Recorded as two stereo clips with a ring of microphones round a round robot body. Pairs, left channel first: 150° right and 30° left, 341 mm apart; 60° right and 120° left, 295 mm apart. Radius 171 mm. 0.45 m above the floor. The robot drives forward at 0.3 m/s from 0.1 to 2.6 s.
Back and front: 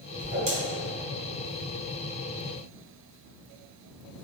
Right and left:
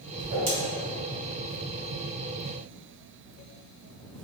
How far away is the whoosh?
About 1.7 m.